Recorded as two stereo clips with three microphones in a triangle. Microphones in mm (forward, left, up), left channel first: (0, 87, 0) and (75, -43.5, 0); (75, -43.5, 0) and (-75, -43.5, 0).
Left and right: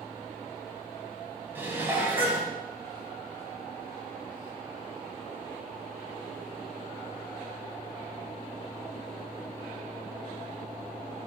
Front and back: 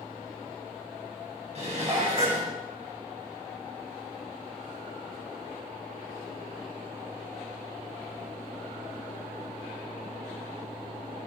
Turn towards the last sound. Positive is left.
turn(degrees=-135)